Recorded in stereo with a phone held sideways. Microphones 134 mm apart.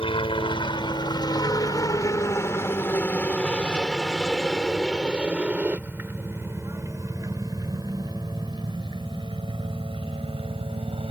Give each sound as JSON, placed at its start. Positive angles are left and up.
{"t": 0.0, "sound": "a helicopter", "side_deg": 40}